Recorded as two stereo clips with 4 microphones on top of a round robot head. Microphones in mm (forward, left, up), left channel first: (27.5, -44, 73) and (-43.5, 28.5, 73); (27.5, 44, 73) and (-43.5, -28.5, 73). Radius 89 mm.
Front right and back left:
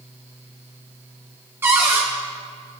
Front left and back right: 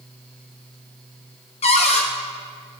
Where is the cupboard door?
65° left, 1.3 m.